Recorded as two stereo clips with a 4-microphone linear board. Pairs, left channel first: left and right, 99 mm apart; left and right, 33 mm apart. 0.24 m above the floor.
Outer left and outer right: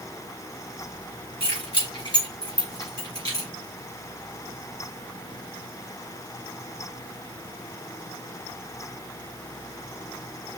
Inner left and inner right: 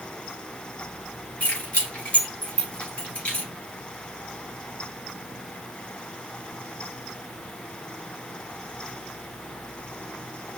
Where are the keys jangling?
60° left (ahead or behind), 3 m; by 3.5 s 40° left (ahead or behind), 3.5 m.